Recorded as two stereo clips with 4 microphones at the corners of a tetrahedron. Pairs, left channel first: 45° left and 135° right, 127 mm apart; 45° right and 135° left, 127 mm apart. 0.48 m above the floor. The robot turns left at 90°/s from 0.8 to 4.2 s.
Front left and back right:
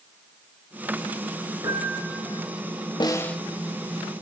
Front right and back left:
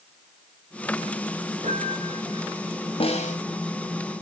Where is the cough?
I don't hear a cough.